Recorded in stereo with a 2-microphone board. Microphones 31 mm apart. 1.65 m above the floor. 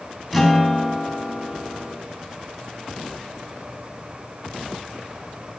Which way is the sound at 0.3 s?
10° right (ahead or behind).